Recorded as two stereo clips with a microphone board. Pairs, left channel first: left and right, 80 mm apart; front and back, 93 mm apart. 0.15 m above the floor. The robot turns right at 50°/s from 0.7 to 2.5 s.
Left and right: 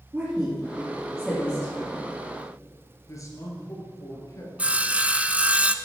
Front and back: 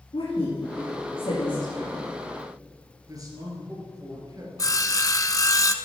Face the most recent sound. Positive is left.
turn(degrees=-25)